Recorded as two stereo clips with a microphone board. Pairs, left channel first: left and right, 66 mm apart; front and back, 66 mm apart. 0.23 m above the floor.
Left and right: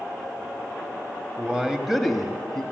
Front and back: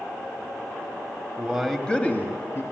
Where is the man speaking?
135° right, 1.5 m; by 2.6 s 10° left, 2 m.